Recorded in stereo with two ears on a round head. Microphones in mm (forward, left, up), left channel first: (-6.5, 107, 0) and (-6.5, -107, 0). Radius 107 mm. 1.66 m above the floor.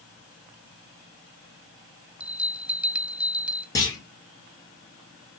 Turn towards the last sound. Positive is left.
turn(degrees=15)  # may be behind; listen again after turning